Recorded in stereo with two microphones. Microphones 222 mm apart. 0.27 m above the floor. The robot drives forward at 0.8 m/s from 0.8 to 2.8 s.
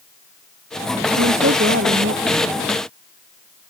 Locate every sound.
1.2 s a woman speaking: 65° right (ahead or behind); by 2.6 s 75° right (ahead or behind)